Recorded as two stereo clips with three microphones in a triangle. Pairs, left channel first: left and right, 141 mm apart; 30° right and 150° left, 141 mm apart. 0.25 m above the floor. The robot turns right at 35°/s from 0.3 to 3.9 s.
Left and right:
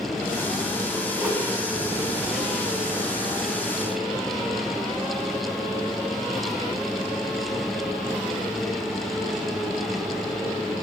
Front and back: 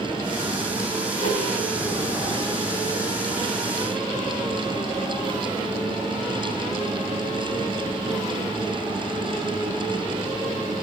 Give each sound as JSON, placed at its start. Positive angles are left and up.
{"t": 1.2, "sound": "a whoosh", "azimuth_deg": -15, "distance_m": 0.5}